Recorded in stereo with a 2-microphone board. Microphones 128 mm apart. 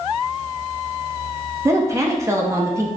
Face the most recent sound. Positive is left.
turn(degrees=-25)  # may be behind; listen again after turning